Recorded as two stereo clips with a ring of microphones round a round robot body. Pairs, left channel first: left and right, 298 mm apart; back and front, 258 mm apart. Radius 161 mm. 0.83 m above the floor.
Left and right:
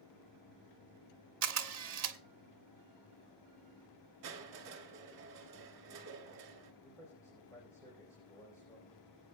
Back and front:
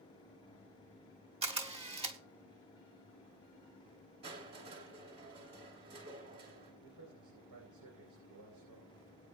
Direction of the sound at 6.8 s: 10° left.